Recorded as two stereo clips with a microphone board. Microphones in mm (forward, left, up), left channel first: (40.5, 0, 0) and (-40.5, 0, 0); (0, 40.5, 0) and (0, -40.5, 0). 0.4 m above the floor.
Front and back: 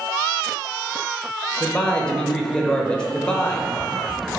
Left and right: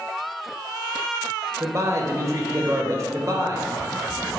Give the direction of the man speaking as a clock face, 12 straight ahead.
2 o'clock.